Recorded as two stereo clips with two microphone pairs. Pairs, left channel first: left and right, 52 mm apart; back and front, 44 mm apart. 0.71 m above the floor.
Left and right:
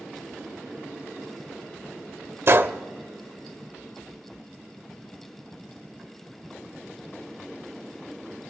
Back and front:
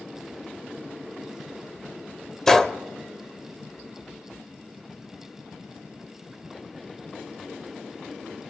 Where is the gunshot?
105° right, 0.5 m.